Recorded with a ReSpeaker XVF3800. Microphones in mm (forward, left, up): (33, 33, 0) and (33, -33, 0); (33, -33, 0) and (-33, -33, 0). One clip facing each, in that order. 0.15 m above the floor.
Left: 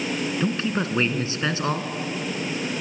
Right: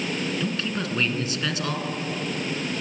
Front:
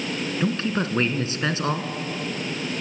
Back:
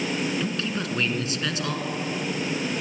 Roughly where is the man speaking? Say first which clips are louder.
Left 3 dB, front 4 dB; ahead left.